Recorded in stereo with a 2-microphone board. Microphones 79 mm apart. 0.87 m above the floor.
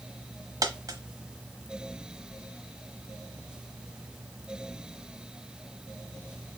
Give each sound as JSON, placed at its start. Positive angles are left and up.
{"t": 0.6, "sound": "a dropped coin", "side_deg": -50, "distance_m": 1.0}